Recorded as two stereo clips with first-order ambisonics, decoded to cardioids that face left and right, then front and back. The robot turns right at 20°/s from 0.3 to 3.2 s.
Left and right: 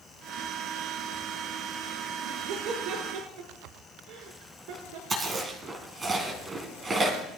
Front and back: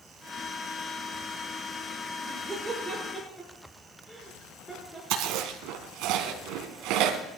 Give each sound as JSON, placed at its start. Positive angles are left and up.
{"t": 2.2, "sound": "laughter", "azimuth_deg": -105, "distance_m": 6.0}
{"t": 5.1, "sound": "chewing", "azimuth_deg": -160, "distance_m": 3.0}